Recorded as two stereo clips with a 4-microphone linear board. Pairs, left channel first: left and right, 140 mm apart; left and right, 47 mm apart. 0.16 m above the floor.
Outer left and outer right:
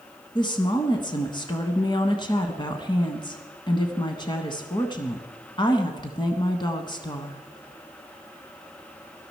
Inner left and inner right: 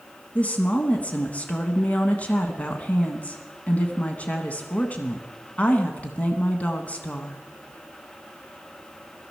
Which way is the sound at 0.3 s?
30° left (ahead or behind).